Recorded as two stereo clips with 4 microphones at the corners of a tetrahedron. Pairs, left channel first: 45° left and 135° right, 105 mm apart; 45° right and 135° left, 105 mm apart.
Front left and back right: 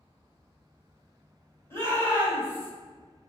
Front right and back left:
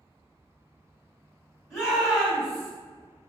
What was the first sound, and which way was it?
A shout, 65° left.